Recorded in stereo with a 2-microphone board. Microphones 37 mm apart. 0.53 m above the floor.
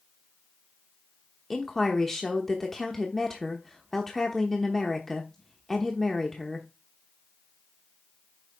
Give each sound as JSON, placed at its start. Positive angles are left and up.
{"t": 1.5, "sound": "a woman speaking", "side_deg": 10, "distance_m": 0.9}